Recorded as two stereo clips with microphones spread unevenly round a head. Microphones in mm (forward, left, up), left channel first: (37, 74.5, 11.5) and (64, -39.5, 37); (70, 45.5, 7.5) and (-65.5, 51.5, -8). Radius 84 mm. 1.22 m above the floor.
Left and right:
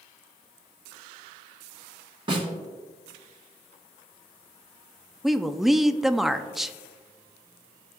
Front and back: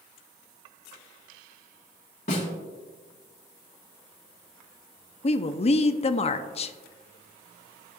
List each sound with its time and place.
2.3 s a snare drum: 45° right, 2.5 m
5.2 s a woman speaking: 25° left, 0.5 m